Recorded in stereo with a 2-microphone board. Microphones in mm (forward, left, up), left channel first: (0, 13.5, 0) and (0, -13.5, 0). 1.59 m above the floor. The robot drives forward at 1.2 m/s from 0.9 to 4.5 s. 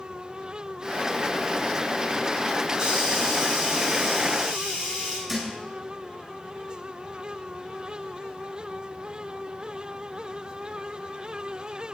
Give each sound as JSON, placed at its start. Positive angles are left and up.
{"t": 2.8, "sound": "a hiss", "side_deg": -20, "distance_m": 4.0}
{"t": 5.3, "sound": "a thud", "side_deg": -20, "distance_m": 4.0}